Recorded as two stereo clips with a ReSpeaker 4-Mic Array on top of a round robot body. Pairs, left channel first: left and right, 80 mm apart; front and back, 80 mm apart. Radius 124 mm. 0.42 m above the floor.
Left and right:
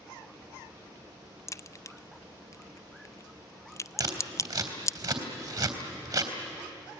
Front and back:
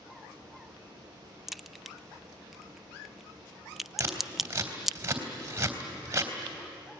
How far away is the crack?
About 0.6 m.